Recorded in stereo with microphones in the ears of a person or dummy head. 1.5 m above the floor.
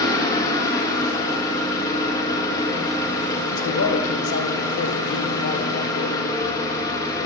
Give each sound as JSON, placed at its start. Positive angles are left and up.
{"t": 0.0, "sound": "an engine running", "side_deg": 20, "distance_m": 1.6}
{"t": 3.5, "sound": "a man speaking", "side_deg": 65, "distance_m": 1.5}